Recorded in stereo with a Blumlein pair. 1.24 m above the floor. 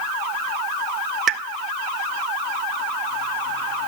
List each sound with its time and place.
1.3 s a pop: 30° right, 0.5 m